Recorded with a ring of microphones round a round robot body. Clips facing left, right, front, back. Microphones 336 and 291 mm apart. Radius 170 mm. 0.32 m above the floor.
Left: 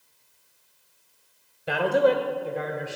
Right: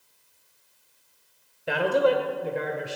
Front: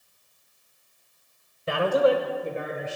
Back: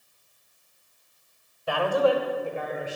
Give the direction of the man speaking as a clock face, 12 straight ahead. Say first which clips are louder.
Left 1 dB, front 2 dB; 12 o'clock.